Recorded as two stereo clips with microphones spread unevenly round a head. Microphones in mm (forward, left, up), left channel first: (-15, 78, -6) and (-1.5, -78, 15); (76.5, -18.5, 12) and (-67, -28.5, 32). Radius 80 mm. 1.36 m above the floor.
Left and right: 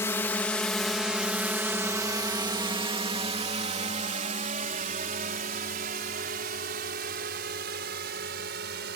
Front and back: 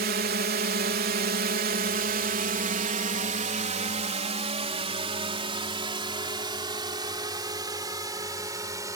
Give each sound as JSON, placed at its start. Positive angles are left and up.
{"t": 0.0, "sound": "a drone", "azimuth_deg": 165}